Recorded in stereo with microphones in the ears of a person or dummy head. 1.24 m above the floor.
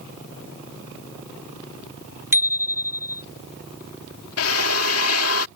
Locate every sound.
2.3 s a bicycle bell: 10° right (ahead or behind)
4.4 s a drill: 80° left